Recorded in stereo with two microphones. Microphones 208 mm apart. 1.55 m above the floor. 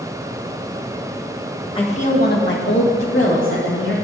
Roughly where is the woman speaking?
Left.